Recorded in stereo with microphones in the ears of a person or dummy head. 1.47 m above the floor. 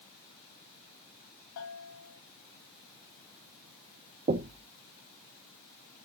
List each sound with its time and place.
1.6 s a bell: 70° left (ahead or behind), 2.5 m
4.3 s knocking: 30° right (ahead or behind), 0.7 m